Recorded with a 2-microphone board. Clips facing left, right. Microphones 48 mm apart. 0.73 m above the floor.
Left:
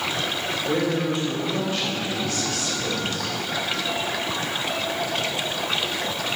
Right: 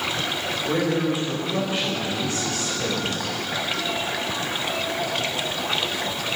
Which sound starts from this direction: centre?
A man speaking, at 0.7 s.